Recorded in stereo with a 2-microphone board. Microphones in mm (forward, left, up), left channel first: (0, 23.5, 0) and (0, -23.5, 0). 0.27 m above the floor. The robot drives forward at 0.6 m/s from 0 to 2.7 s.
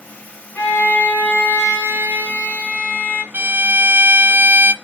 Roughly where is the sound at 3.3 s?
Right.